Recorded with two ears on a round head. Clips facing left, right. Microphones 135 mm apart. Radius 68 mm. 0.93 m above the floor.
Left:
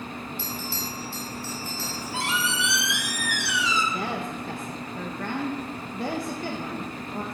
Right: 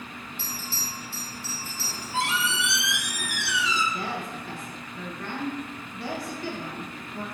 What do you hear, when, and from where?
0.4 s a bell: 65° left (ahead or behind), 3 m
1.8 s a squeak: 60° left (ahead or behind), 1.9 m
3.9 s a woman speaking: 40° left (ahead or behind), 1.1 m